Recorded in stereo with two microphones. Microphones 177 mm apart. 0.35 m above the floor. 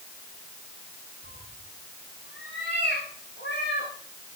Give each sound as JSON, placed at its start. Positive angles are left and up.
{"t": 1.2, "sound": "a cat meowing", "side_deg": 75, "distance_m": 7.0}